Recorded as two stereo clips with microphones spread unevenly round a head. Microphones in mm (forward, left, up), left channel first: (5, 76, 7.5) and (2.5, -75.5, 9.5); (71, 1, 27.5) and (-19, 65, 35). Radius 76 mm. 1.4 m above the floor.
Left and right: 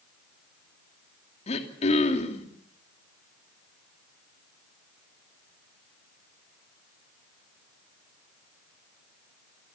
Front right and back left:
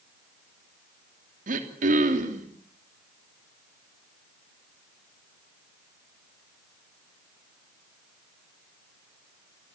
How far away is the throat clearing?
About 3 m.